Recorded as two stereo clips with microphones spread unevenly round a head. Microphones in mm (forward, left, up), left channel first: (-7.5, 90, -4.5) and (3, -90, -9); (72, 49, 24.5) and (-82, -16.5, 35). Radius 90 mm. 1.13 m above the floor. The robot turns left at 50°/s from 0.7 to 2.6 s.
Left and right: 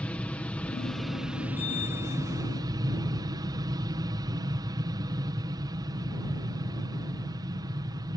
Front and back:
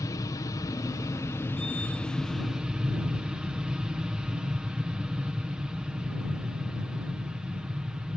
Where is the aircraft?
20° left; by 8.2 s 75° right.